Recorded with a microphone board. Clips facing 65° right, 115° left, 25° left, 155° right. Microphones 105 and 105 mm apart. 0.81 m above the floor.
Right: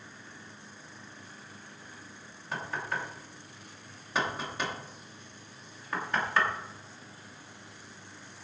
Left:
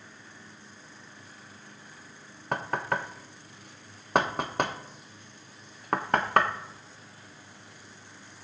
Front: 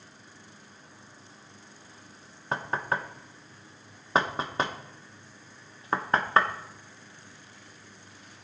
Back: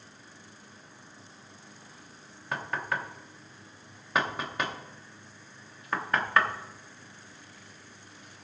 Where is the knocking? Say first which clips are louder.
Left 5 dB, front 3 dB; 80° left, 0.9 m.